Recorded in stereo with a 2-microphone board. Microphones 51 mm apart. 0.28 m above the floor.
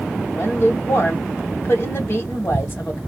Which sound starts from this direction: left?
A woman speaking, at 0.3 s.